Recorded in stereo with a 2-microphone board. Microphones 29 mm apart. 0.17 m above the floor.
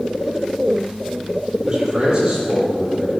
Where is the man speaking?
30° right (ahead or behind), 5 m; by 3.1 s 25° right (ahead or behind), 6.5 m.